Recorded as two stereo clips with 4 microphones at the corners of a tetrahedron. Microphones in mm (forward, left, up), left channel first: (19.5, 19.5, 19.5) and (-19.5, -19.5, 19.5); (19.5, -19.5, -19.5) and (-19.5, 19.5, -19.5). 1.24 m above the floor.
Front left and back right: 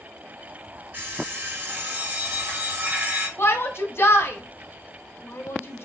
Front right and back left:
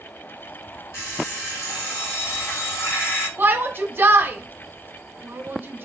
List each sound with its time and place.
0.9 s an alarm clock: 80° right, 2.5 m
3.4 s a shout: 85° left, 0.9 m